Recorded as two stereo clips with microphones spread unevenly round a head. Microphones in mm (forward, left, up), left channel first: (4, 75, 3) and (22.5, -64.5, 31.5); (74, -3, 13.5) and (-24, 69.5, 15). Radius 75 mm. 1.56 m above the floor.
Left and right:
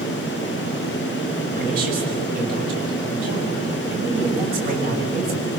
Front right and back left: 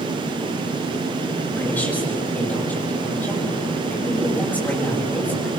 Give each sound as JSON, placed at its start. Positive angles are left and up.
{"t": 1.6, "sound": "a woman speaking", "azimuth_deg": -115, "distance_m": 7.5}